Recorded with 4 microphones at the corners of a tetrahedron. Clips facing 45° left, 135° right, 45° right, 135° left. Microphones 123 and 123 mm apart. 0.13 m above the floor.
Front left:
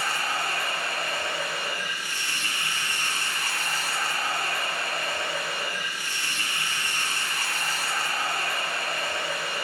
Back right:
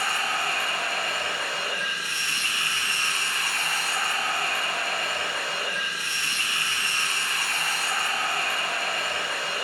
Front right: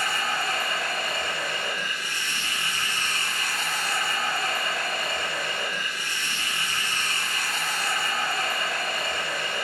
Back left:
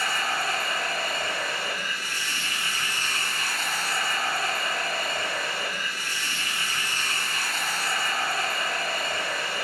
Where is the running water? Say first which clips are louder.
Back right 1 dB, even; 145° right, 2 m.